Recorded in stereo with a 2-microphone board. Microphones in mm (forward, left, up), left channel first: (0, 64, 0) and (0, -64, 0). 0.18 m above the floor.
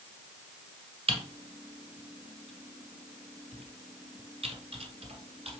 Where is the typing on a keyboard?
55° right (ahead or behind), 1.5 m.